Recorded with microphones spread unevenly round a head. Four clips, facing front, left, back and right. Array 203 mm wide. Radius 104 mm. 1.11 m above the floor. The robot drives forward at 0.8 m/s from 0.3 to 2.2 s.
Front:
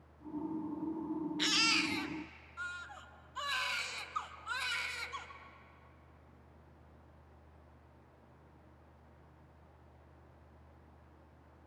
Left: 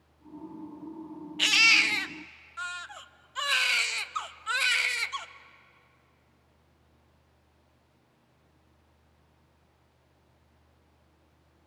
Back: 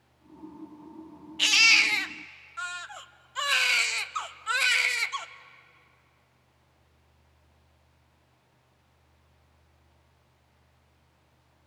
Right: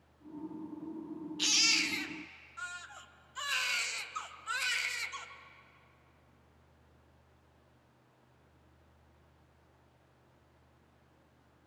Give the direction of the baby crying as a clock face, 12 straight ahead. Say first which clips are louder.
Left 12 dB, back 7 dB; 8 o'clock.